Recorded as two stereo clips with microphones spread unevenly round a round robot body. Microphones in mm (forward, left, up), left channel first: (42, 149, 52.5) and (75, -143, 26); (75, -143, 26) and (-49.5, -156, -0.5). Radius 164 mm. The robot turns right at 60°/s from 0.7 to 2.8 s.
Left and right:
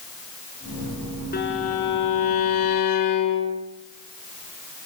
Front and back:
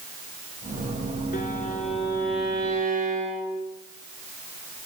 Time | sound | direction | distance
1.3 | a violin | 35° left | 5.5 m